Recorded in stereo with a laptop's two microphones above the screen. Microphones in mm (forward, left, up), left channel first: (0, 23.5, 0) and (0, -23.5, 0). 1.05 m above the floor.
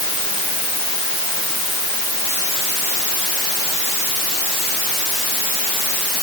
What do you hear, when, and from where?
Only background noise.